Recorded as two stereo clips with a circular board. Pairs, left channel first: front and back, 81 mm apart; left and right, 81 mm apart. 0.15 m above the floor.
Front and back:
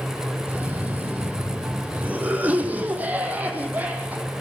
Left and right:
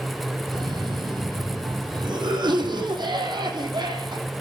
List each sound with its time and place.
0.5 s a cough: 110° right, 6.5 m